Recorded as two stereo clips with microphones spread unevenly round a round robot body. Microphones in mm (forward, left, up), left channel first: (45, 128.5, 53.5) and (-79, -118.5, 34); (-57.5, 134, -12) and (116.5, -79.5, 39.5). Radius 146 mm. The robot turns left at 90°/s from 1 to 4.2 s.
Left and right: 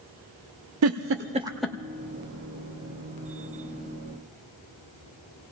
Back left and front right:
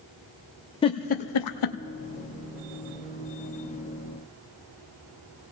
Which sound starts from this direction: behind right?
A giggle, at 0.8 s.